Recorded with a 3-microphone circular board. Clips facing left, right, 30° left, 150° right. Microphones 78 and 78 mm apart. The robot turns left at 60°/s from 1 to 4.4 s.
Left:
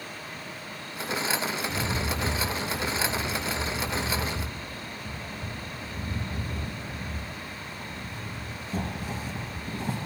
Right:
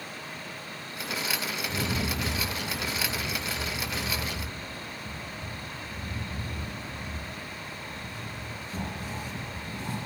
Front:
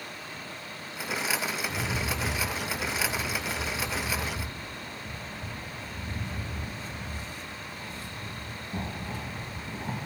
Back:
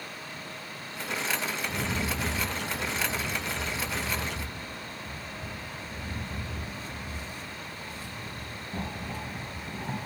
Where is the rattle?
80° right, 1.9 m; by 10.1 s 110° left, 1.9 m.